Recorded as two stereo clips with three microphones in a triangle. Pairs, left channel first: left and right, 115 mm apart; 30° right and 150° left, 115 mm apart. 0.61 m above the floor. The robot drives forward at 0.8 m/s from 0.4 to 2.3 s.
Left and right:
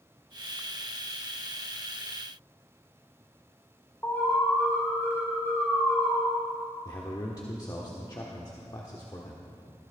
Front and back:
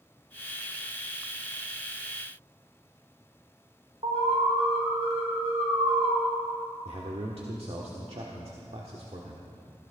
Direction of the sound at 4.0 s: 160° left.